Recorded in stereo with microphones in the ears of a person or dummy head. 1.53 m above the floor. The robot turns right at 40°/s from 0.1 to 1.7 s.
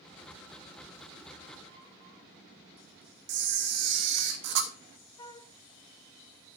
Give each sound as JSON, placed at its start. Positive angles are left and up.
{"t": 3.3, "sound": "a camera shutter", "side_deg": -65, "distance_m": 1.0}
{"t": 5.2, "sound": "a flute", "side_deg": 20, "distance_m": 0.7}